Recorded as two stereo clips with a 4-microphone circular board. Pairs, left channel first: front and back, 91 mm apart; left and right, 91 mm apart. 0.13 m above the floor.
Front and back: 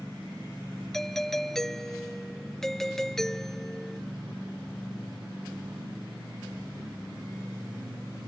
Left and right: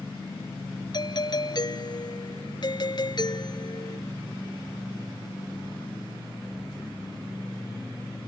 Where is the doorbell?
85° left.